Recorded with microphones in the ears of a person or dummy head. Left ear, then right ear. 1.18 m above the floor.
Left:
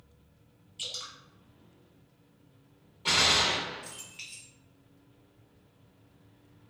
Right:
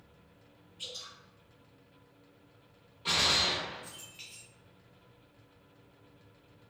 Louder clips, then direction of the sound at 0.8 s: Left 5 dB; 40° left (ahead or behind).